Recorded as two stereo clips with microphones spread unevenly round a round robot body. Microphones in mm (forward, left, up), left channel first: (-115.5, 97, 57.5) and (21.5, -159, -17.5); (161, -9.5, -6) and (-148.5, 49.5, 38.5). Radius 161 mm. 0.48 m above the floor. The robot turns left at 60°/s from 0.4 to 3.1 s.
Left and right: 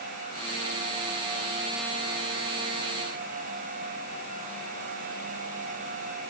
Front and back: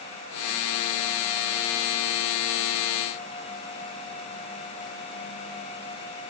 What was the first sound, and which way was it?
Only background noise.